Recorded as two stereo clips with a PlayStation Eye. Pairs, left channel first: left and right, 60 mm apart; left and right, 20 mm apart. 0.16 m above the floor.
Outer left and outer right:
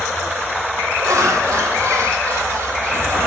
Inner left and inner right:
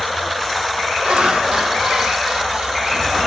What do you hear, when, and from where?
1.0 s laughter: 60° right (ahead or behind), 4 m; by 3.2 s 45° right (ahead or behind), 4.5 m